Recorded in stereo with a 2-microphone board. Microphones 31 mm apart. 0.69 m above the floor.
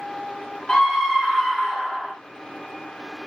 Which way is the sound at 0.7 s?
20° left (ahead or behind).